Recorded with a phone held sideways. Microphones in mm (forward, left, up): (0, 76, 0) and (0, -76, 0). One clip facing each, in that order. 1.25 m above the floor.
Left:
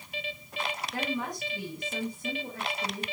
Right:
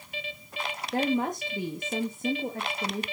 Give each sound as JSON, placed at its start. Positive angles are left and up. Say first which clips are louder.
{"t": 0.9, "sound": "a woman speaking", "louder": "right 9 dB", "side_deg": -45, "distance_m": 1.8}